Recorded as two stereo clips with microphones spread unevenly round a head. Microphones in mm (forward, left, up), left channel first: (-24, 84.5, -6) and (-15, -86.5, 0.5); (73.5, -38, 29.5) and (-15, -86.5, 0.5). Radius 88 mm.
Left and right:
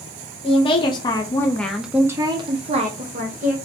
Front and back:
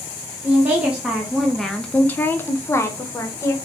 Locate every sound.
0.4 s a woman speaking: 145° left, 0.9 m; by 3.5 s 40° right, 1.0 m